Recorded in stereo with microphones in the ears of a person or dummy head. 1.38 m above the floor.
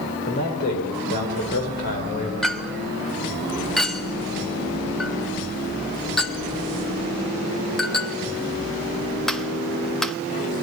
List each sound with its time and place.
0.3 s a man speaking: 55° left (ahead or behind), 5.5 m
2.4 s a clink: 5° left (ahead or behind), 0.7 m